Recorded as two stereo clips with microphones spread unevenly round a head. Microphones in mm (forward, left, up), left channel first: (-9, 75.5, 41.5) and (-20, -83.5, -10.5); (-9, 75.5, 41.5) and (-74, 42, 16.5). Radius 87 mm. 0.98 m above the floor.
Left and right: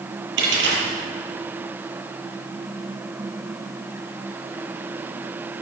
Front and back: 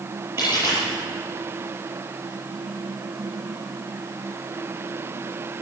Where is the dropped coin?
80° right, 9.5 m.